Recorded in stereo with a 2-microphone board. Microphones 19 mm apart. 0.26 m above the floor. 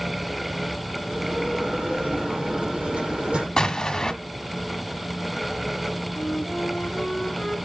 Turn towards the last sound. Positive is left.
turn(degrees=35)  # may be behind; listen again after turning